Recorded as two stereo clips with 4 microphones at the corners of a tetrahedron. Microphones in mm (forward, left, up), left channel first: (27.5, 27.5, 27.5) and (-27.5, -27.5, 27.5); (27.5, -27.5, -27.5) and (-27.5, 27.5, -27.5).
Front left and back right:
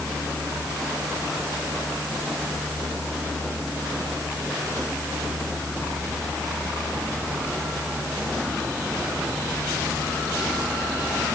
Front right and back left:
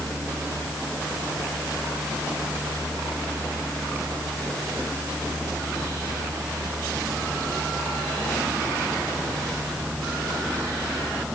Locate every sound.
Only background noise.